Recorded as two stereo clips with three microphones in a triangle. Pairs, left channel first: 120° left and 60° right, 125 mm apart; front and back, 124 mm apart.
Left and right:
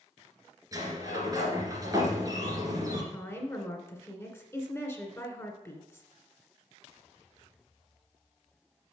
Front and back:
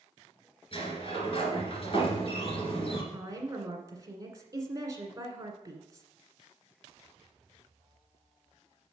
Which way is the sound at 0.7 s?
10° right.